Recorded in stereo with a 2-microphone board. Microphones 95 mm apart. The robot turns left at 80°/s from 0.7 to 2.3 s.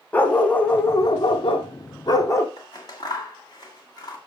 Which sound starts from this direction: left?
Scissors, at 2.6 s.